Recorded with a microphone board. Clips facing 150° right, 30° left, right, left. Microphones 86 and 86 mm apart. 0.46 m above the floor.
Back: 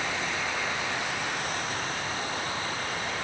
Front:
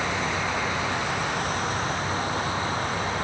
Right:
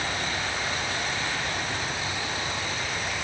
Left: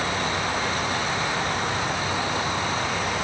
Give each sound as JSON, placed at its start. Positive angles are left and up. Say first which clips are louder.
{"t": 0.0, "sound": "an insect", "louder": "front 4 dB, left 5 dB", "azimuth_deg": 85, "distance_m": 0.8}